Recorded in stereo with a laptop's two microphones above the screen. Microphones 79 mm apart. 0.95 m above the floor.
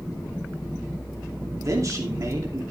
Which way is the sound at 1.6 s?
45° right (ahead or behind).